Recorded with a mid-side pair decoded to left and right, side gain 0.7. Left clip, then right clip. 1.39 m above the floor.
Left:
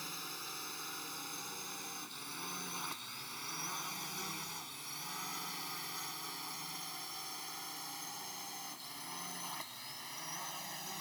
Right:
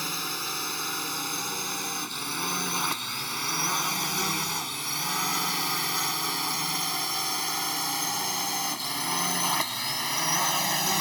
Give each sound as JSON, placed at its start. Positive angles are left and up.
{"t": 0.0, "sound": "a drone", "azimuth_deg": -50}